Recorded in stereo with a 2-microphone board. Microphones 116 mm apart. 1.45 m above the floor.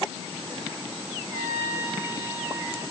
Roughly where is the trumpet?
Right.